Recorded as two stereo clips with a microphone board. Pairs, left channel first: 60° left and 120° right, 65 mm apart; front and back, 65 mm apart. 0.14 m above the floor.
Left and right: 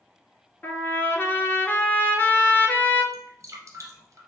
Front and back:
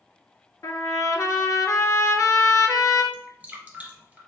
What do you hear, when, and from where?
0.6 s a trumpet: 10° left, 0.6 m
3.1 s dripping: 115° right, 1.5 m